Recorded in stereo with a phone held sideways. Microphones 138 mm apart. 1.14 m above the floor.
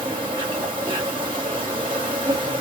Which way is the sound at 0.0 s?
35° right (ahead or behind).